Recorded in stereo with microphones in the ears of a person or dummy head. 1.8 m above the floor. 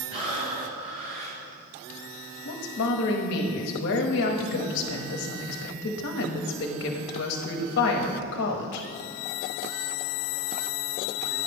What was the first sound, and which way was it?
Breathing, 30° right (ahead or behind).